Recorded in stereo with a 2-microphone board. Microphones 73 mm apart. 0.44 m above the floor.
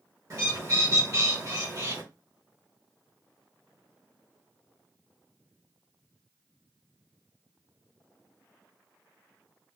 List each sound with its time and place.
0.3 s a bird: 45° right (ahead or behind), 1.6 m